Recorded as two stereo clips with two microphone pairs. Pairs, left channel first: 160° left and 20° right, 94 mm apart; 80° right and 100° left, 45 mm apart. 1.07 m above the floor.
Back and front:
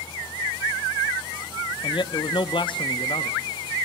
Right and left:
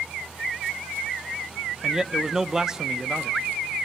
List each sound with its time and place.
1.8 s a man speaking: 175° left, 0.5 m